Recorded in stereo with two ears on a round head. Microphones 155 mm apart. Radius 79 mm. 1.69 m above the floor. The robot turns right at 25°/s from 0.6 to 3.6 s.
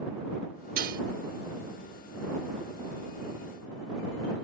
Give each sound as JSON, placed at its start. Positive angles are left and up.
{"t": 0.8, "sound": "dishes clattering", "side_deg": -55}